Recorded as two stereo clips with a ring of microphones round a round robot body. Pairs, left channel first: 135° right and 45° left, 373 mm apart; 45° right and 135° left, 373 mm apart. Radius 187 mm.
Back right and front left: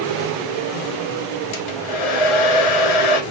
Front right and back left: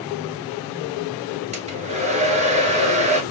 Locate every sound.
1.5 s a hair dryer: 150° right, 1.2 m